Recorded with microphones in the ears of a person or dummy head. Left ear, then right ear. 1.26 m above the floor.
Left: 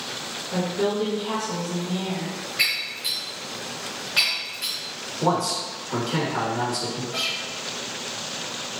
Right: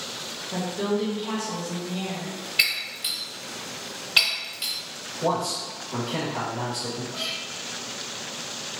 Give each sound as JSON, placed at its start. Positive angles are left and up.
{"t": 0.5, "sound": "a woman speaking", "side_deg": -10, "distance_m": 0.7}
{"t": 2.6, "sound": "breaking glass", "side_deg": -25, "distance_m": 1.7}
{"t": 5.2, "sound": "a man speaking", "side_deg": 60, "distance_m": 1.3}
{"t": 7.1, "sound": "a guitar", "side_deg": 80, "distance_m": 0.8}